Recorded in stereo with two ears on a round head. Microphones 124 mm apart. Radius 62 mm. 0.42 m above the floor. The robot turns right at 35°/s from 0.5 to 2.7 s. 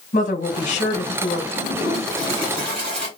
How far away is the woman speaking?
About 1.5 m.